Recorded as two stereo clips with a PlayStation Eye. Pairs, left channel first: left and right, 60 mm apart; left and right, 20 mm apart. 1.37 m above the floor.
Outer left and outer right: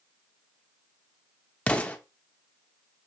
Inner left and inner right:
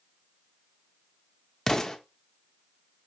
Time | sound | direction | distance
1.7 | an explosion | 20° left (ahead or behind) | 0.7 m